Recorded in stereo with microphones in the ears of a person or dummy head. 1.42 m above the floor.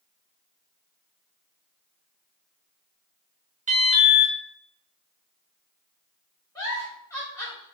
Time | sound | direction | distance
3.7 | an alarm | 40° right (ahead or behind) | 1.2 m
6.5 | a giggle | 15° left (ahead or behind) | 2.5 m